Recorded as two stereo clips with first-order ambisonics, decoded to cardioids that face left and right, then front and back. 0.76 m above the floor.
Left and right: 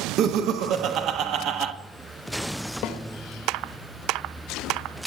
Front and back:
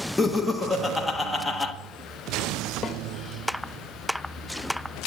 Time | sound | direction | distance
0.2 | laughter | 85° right | 0.9 m
2.8 | a snare drum | 65° left | 1.0 m